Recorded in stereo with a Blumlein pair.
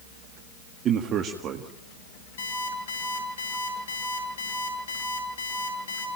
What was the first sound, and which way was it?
A man speaking, 30° right.